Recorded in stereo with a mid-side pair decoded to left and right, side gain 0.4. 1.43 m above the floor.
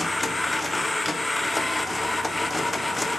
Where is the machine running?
15° left, 0.7 m.